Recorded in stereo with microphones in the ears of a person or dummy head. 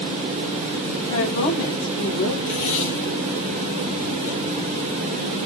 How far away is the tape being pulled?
About 2.5 m.